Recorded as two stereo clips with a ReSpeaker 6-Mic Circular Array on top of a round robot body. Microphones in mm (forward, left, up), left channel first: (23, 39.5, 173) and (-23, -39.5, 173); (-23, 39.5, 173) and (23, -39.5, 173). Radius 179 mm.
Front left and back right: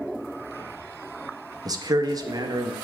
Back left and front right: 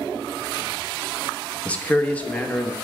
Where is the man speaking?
165° right, 0.9 m.